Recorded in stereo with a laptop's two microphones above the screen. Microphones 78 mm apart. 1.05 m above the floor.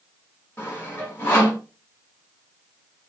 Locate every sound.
0.6 s sawing: 30° left (ahead or behind), 3 m